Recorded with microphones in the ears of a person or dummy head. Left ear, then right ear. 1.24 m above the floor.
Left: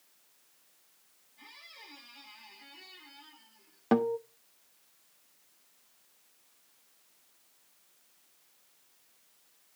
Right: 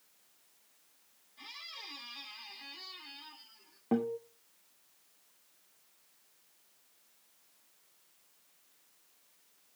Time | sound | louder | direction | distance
1.4 | a squeak | right 5 dB | 35° right (ahead or behind) | 1.8 m
3.9 | a guitar | left 6 dB | 60° left (ahead or behind) | 0.8 m